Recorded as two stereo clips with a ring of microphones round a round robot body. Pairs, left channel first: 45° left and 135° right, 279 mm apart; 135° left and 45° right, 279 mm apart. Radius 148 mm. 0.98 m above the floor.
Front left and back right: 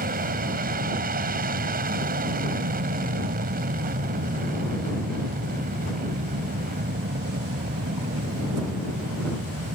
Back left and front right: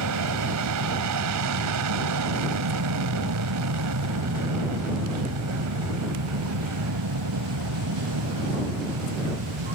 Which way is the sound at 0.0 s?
75° right.